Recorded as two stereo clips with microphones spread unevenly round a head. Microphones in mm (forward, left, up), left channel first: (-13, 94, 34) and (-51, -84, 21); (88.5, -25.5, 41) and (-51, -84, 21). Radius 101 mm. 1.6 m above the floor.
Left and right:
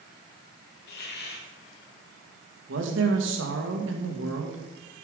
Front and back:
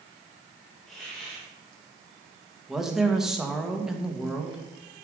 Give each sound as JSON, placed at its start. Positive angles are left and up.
{"t": 0.9, "sound": "a hiss", "azimuth_deg": 110, "distance_m": 2.0}
{"t": 2.7, "sound": "a woman speaking", "azimuth_deg": -70, "distance_m": 2.0}